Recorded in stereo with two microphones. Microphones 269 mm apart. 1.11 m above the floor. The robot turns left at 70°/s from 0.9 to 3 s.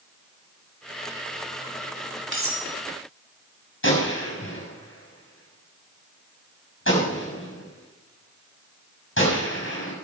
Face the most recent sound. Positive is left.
turn(degrees=50)  # may be behind; listen again after turning